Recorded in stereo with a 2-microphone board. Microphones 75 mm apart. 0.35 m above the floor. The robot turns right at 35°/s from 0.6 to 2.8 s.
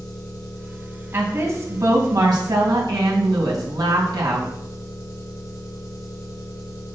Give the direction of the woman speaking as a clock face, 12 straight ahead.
5 o'clock.